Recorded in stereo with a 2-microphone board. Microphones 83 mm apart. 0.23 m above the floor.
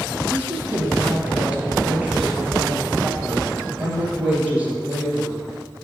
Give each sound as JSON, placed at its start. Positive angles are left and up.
{"t": 0.3, "sound": "a woman speaking", "side_deg": -20, "distance_m": 4.0}